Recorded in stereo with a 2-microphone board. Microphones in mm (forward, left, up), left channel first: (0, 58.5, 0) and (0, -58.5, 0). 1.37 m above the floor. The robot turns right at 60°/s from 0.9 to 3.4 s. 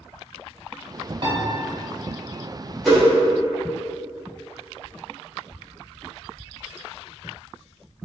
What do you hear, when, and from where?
1.2 s a piano: 50° right (ahead or behind), 0.7 m; by 1.4 s 40° right (ahead or behind), 0.7 m
2.9 s a whoosh: centre (ahead or behind), 1.0 m; by 3.0 s 10° right (ahead or behind), 1.0 m